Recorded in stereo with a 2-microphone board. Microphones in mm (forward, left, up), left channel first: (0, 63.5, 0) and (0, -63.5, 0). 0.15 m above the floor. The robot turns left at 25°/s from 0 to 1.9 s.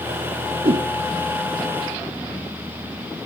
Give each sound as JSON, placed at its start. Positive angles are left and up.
{"t": 0.7, "sound": "a whoosh", "side_deg": -55, "distance_m": 0.5}